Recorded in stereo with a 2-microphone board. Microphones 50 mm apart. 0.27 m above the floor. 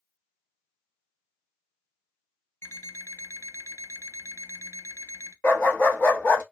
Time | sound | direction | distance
2.6 | an alarm clock | 60° left (ahead or behind) | 0.5 m
5.4 | a dog barking | 40° left (ahead or behind) | 1.0 m